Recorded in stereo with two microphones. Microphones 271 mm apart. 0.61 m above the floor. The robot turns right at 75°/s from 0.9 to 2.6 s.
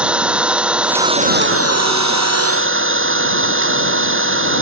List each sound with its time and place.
0.0 s an engine running: 175° right; by 4.6 s 50° right